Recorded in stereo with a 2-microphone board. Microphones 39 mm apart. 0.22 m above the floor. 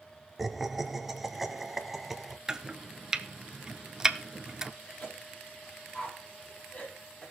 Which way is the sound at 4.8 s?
40° left (ahead or behind).